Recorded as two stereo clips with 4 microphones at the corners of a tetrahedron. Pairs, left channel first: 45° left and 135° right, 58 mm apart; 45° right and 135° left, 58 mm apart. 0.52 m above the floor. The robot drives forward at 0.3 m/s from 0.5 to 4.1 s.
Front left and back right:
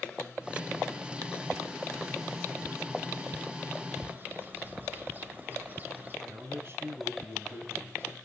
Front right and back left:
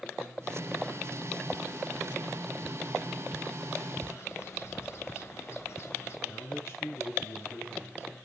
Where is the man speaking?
90° right, 4.5 m.